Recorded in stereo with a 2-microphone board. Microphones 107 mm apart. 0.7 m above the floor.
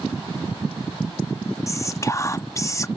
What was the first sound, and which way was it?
Whispering, 30° left (ahead or behind).